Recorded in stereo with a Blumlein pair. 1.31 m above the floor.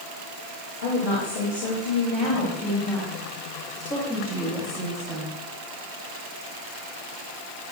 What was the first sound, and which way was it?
A woman speaking, 50° left.